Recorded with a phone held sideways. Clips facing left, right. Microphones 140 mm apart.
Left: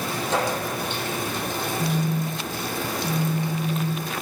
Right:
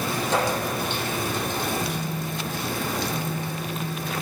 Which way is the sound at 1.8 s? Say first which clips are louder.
Left 4 dB; 70° left (ahead or behind).